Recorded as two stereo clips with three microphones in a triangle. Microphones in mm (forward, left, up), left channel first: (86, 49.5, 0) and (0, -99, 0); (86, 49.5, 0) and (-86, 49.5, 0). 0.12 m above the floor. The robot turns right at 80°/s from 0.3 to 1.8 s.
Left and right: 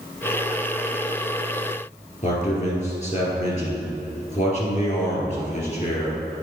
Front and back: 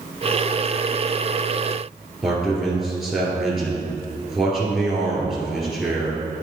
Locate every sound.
2.2 s a man speaking: 90° left, 2 m